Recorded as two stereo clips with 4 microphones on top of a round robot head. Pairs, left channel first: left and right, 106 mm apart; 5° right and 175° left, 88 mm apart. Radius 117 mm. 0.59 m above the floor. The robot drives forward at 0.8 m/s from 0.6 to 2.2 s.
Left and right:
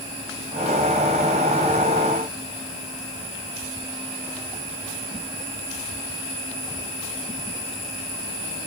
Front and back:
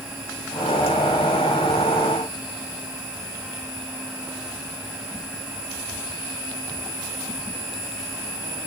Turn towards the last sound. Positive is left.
No sound to turn to.